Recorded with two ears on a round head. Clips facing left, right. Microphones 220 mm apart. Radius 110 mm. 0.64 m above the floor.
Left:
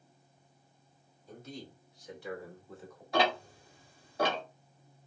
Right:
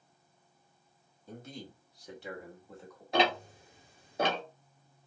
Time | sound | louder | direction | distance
1.3 | a man speaking | even | 50° right (ahead or behind) | 1.5 m
3.1 | ticking | right 1 dB | 20° right (ahead or behind) | 1.1 m